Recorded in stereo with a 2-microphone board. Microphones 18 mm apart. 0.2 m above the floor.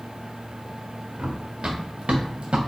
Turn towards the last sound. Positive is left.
turn(degrees=-80)